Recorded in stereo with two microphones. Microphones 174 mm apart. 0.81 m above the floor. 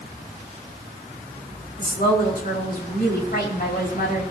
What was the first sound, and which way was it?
A woman speaking, 65° left (ahead or behind).